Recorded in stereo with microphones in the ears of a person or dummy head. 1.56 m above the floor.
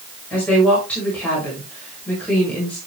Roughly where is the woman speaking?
Centre.